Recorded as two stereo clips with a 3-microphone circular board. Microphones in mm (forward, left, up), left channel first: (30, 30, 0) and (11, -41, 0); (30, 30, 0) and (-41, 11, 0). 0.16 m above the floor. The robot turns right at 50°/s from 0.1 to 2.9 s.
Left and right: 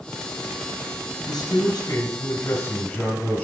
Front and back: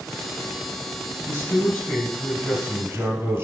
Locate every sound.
1.3 s a man speaking: 60° left, 1.8 m; by 3.4 s 140° left, 1.8 m